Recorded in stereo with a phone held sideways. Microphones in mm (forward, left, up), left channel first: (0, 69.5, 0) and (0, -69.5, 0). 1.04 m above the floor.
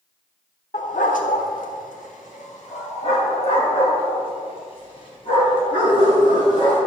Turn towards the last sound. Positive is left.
turn(degrees=35)  # may be behind; listen again after turning